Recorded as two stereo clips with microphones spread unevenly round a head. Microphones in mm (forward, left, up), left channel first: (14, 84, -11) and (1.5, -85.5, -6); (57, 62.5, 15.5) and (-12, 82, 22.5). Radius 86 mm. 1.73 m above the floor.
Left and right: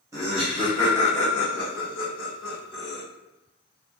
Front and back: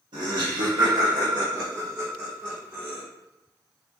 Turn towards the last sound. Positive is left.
turn(degrees=90)